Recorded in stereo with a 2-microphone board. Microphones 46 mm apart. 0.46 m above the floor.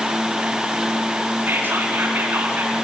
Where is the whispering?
50° right (ahead or behind), 4.5 m.